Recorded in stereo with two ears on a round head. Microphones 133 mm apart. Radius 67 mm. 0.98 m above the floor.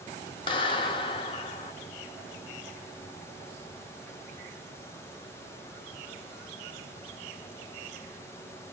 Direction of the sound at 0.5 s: 35° left (ahead or behind).